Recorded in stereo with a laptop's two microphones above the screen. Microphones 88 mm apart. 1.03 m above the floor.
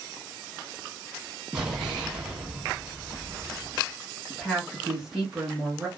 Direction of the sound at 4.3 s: 5° right (ahead or behind).